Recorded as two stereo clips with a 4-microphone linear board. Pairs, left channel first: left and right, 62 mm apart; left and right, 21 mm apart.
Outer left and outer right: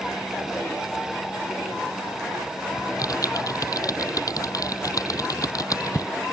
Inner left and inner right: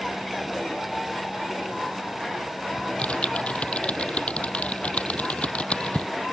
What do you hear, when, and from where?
2.8 s typing on a keyboard: 70° left (ahead or behind)